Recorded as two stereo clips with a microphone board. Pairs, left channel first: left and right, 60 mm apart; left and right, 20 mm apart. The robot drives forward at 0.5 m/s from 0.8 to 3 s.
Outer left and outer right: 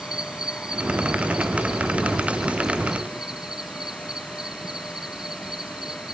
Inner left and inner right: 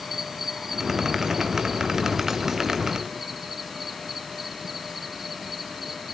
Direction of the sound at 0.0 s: 15° right (ahead or behind).